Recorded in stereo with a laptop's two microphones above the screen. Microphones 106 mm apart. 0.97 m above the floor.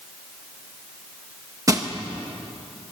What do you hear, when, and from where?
1.7 s crushing: 30° right (ahead or behind), 1.2 m